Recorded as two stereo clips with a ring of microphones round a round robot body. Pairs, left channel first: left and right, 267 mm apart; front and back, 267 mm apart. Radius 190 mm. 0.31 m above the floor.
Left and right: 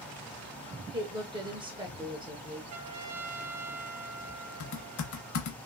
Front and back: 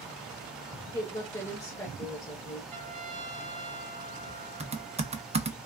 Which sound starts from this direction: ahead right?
A woman speaking, at 0.9 s.